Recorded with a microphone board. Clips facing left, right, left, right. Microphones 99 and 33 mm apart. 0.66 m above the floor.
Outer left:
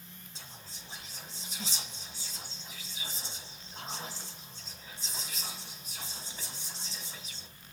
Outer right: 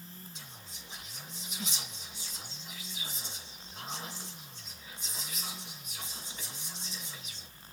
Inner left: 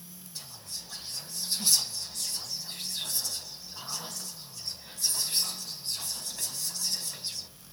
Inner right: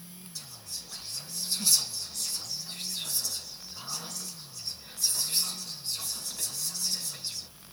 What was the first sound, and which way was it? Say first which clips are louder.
Whispering: even, inner left 1 dB; 30° left (ahead or behind).